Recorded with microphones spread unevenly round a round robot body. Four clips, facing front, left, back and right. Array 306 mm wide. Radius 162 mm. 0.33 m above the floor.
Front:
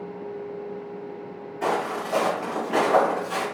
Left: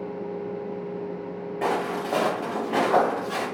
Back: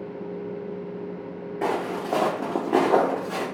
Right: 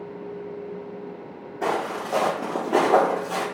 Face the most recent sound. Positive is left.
turn(degrees=-135)